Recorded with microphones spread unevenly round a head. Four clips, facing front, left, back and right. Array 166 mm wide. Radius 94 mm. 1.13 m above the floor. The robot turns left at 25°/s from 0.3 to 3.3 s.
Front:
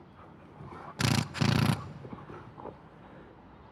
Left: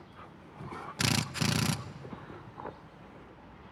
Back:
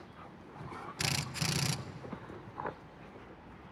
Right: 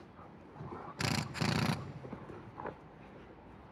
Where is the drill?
45° left, 0.6 m; by 1.8 s 25° left, 0.6 m.